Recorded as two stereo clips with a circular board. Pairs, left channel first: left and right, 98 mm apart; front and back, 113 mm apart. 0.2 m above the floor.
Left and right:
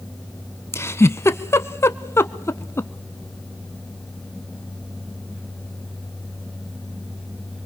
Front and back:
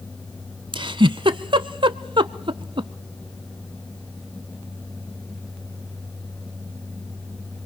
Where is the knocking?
No knocking in this recording.